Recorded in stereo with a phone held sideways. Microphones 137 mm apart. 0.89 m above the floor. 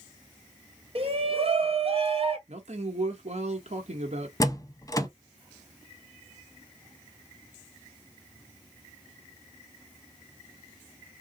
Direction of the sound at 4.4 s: 25° left (ahead or behind).